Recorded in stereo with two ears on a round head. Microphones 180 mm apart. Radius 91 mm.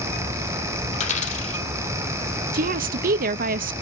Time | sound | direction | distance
0.9 | a dropped coin | 40° left (ahead or behind) | 3 m
2.5 | a woman speaking | 45° right (ahead or behind) | 0.6 m